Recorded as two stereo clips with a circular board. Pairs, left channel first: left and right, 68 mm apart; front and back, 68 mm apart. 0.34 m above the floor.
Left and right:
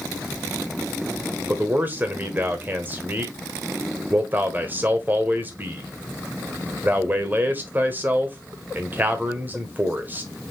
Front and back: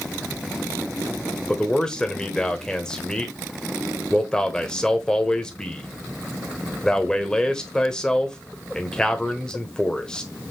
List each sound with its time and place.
1.5 s a man speaking: 65° right, 1.0 m